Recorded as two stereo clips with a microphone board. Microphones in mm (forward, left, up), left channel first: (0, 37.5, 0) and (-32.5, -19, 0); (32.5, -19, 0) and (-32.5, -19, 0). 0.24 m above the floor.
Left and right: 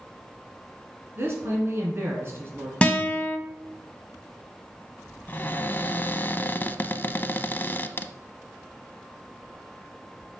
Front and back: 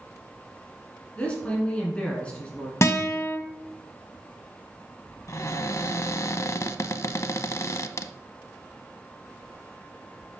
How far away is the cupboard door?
About 0.5 m.